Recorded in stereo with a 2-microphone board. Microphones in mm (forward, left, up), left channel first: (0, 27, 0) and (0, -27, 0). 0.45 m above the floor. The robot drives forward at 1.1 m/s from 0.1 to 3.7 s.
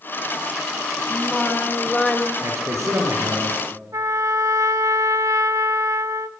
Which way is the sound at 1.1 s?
5° left (ahead or behind).